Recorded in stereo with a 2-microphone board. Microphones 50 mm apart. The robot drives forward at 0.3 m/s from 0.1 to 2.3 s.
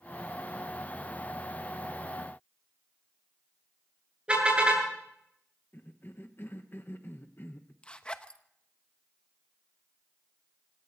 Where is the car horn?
20° right (ahead or behind), 8.5 m.